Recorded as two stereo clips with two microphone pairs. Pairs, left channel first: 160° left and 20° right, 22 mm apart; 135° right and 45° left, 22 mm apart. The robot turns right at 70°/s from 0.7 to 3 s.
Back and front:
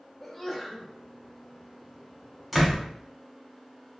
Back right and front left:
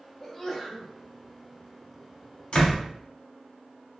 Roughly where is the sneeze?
Behind right.